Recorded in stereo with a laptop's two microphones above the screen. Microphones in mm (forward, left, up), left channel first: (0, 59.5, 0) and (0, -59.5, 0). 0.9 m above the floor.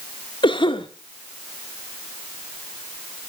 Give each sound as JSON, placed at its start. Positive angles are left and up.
{"t": 0.4, "sound": "a cough", "side_deg": 45, "distance_m": 1.8}